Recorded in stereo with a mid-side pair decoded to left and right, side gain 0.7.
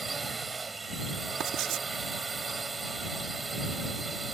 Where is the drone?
20° right.